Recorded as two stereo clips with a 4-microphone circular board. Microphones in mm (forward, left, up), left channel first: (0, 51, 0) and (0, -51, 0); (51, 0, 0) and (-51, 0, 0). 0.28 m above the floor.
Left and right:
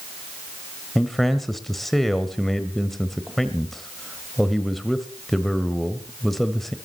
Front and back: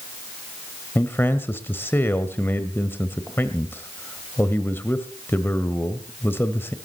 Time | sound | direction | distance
0.9 | a man speaking | 5° left | 1.3 m